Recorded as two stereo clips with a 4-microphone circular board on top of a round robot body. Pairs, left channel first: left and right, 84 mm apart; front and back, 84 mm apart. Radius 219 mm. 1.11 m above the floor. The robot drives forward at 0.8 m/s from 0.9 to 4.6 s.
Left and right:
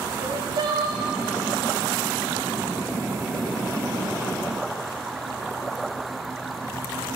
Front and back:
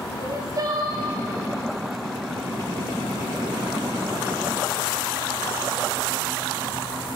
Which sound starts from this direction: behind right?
Crying, at 0.2 s.